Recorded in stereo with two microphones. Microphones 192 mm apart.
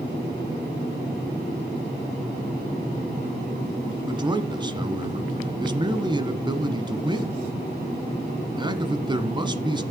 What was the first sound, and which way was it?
A man speaking, 25° right (ahead or behind).